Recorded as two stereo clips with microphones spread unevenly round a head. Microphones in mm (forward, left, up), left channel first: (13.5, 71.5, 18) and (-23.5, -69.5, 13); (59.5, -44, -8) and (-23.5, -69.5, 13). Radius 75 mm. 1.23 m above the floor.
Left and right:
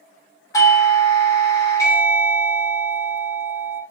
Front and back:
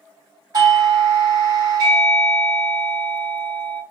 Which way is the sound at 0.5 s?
135° left.